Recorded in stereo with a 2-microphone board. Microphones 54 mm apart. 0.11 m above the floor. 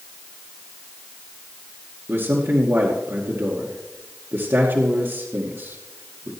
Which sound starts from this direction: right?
A man speaking, at 2.1 s.